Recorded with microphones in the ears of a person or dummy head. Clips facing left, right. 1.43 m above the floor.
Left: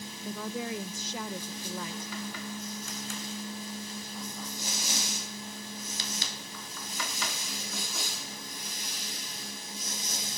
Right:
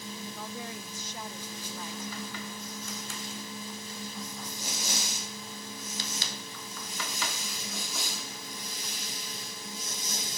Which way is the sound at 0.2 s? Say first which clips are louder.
Left 9 dB; 65° left (ahead or behind).